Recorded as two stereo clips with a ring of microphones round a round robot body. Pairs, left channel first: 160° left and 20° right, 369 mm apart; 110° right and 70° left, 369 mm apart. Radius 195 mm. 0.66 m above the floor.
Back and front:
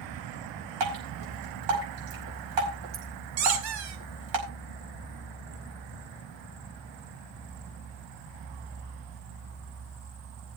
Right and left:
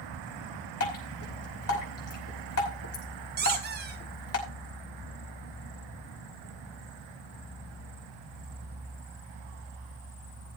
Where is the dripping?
60° right, 5 m.